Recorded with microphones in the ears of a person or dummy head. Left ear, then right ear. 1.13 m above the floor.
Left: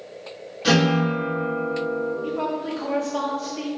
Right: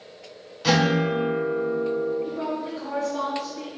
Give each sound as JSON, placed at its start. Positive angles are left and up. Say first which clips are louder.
{"t": 0.6, "sound": "a guitar", "louder": "left 1 dB", "side_deg": -20, "distance_m": 1.5}
{"t": 2.2, "sound": "a woman speaking", "louder": "left 3 dB", "side_deg": 25, "distance_m": 0.5}